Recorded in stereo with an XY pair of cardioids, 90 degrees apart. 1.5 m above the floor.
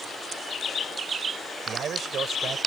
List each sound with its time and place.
1.7 s a man speaking: 65° right